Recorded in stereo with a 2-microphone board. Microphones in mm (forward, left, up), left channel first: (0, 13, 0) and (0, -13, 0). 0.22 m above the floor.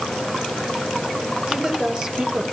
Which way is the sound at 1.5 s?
25° right (ahead or behind).